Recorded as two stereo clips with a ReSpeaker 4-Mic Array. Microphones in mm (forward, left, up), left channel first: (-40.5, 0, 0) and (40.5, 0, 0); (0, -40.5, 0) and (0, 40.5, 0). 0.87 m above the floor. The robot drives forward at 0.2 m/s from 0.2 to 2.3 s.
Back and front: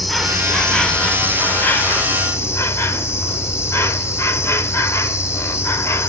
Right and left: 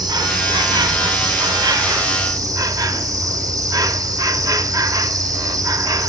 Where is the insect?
90° left, 0.7 m; by 6.1 s 125° left, 0.8 m.